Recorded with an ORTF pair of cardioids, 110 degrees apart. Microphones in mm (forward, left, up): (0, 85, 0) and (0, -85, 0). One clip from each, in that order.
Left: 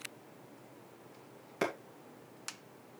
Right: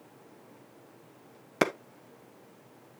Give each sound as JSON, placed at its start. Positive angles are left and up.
{"t": 1.6, "sound": "a clap", "azimuth_deg": -55, "distance_m": 1.3}